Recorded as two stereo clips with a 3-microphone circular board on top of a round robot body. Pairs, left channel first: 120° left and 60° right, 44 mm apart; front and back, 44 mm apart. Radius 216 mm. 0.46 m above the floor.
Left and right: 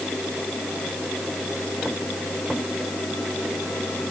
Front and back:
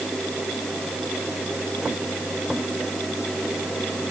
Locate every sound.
Only background noise.